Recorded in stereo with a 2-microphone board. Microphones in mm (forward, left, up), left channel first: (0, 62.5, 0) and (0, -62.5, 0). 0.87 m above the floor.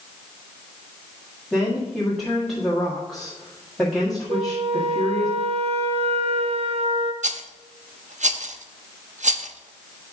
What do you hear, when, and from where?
1.5 s a woman speaking: centre (ahead or behind), 1.6 m
4.3 s a flute: 55° right (ahead or behind), 0.9 m
7.2 s a rattle: 85° right, 0.6 m